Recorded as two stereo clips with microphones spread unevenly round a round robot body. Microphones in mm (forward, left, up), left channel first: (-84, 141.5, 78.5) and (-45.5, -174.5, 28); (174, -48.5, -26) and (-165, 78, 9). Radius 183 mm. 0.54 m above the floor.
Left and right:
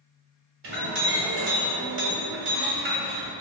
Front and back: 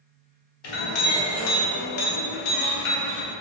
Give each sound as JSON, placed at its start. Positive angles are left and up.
{"t": 0.6, "sound": "a clink", "azimuth_deg": -35, "distance_m": 0.9}